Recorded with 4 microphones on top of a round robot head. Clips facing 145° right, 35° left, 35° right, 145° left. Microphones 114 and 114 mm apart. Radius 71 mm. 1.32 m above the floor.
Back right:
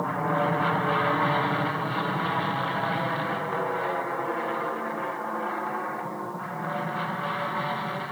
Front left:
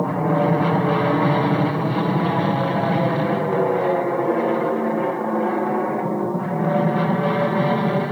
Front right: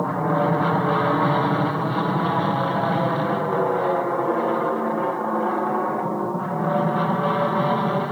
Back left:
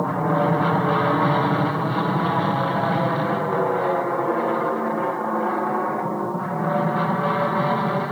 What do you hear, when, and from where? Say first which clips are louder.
0.0 s an aircraft: front left 6 dB, even; 55° left; by 8.1 s 45° left